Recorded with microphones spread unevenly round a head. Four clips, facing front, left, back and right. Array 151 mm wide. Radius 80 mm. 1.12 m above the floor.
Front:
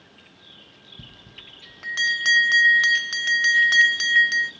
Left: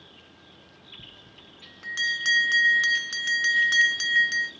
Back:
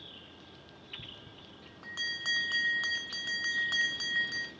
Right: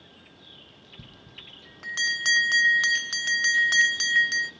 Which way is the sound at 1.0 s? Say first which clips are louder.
Right 1 dB, front 3 dB; 15° right.